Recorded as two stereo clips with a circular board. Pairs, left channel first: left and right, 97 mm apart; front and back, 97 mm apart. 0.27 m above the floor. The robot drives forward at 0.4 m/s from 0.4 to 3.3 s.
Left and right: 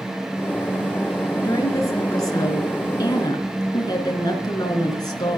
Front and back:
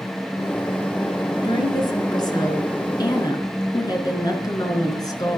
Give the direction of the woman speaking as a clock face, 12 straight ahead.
11 o'clock.